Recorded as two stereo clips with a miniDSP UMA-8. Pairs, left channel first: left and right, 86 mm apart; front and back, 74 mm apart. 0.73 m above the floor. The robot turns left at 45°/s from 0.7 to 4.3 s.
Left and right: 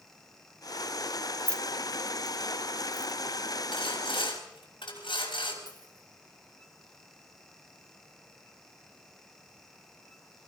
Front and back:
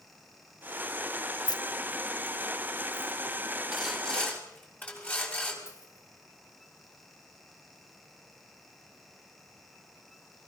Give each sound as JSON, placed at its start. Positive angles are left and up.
{"t": 1.5, "sound": "keys jangling", "azimuth_deg": 15, "distance_m": 0.9}
{"t": 3.7, "sound": "sawing", "azimuth_deg": 95, "distance_m": 5.5}
{"t": 5.7, "sound": "a dropped coin", "azimuth_deg": -55, "distance_m": 4.5}